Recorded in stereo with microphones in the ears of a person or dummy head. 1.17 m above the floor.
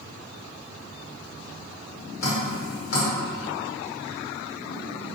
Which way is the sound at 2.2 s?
65° left (ahead or behind).